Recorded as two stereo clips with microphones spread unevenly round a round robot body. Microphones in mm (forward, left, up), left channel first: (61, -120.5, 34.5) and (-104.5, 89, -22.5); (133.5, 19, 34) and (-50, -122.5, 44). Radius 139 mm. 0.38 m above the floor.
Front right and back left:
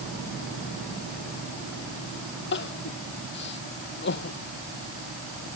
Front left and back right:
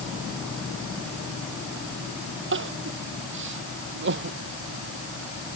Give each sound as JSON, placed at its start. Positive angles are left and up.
{"t": 2.5, "sound": "crying", "azimuth_deg": -105}